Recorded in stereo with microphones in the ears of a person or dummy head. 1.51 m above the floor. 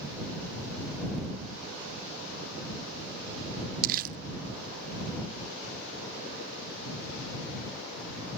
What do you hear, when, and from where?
3.8 s crumpling: 50° right (ahead or behind)